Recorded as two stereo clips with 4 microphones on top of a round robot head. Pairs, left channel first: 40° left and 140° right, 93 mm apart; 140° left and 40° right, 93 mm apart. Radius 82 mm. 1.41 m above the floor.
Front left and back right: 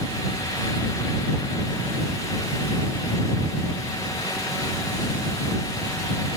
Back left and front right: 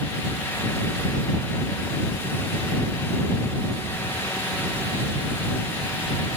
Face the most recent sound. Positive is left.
No sound to turn to.